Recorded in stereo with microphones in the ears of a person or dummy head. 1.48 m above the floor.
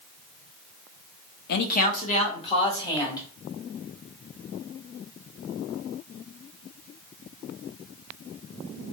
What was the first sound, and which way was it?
A man speaking, 55° left (ahead or behind).